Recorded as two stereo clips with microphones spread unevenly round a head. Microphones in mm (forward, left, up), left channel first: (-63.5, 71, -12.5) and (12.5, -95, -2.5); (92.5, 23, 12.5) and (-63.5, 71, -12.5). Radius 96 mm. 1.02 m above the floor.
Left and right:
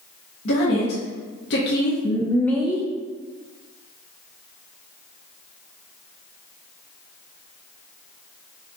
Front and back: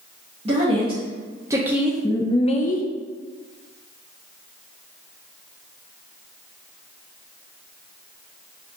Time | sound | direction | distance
0.5 | a woman speaking | 115° left | 1.2 m